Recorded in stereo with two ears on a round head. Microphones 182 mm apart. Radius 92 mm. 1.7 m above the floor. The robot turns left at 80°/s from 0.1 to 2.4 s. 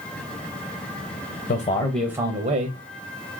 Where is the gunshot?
I don't hear a gunshot.